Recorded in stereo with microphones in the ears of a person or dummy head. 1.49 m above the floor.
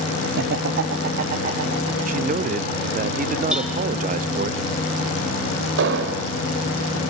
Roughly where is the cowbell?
Centre.